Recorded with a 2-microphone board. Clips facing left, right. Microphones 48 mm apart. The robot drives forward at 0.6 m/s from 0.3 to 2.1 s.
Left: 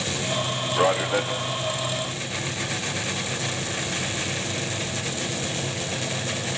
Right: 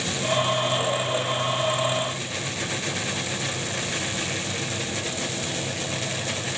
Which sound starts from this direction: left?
A man speaking, at 0.8 s.